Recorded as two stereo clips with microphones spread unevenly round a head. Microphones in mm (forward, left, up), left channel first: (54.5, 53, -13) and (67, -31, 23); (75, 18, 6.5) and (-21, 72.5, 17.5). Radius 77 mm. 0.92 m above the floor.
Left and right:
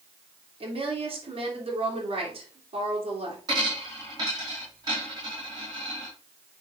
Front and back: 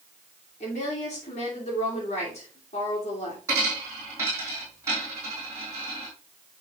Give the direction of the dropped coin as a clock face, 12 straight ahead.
5 o'clock.